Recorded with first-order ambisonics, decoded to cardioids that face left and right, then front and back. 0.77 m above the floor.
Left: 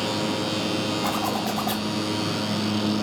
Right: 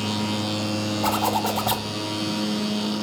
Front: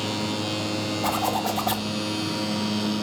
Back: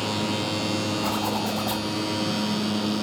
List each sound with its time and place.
1.0 s a zipper: 90° right, 4.5 m